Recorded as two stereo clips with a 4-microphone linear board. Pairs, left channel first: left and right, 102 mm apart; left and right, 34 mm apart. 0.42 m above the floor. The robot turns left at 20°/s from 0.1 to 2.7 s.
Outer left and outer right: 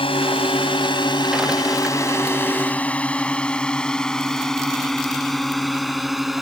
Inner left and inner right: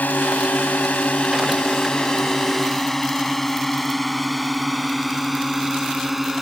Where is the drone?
60° left (ahead or behind); by 6.4 s 5° right (ahead or behind).